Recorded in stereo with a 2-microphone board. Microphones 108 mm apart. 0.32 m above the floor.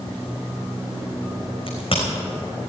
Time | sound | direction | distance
1.7 | a crack | 55° left (ahead or behind) | 4 m